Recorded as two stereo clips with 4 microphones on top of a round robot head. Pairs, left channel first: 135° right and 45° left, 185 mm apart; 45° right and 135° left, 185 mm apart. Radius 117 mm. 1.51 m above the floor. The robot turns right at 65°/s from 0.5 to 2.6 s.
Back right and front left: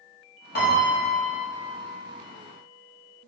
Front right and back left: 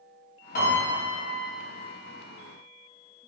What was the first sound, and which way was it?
A piano, 90° right.